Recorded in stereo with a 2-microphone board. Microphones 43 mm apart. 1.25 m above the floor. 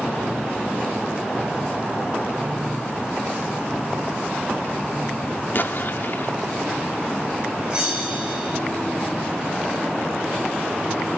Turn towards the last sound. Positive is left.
turn(degrees=-20)  # may be behind; listen again after turning